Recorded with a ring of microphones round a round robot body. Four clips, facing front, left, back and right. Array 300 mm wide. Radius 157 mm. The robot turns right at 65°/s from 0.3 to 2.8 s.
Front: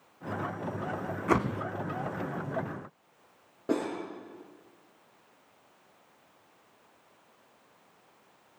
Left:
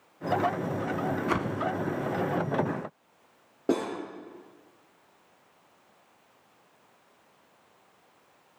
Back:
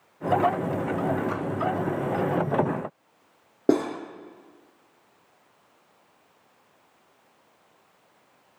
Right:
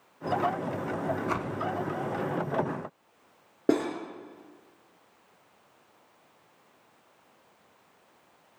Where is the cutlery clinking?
160° right, 4.5 m.